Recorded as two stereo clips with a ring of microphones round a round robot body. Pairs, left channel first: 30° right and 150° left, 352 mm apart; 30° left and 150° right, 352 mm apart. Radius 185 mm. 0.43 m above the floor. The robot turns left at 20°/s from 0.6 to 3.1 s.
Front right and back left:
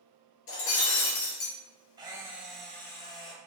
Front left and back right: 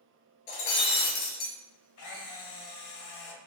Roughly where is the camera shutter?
Left.